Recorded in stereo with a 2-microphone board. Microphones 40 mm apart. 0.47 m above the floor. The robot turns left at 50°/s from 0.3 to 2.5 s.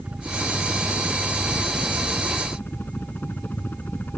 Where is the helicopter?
35° right (ahead or behind); by 4.2 s 55° left (ahead or behind).